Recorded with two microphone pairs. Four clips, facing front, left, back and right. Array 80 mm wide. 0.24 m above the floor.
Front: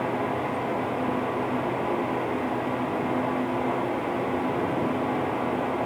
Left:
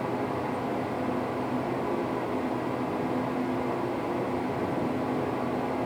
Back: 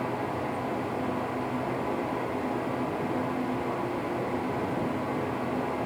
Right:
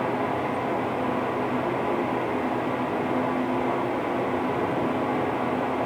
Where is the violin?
No violin in this recording.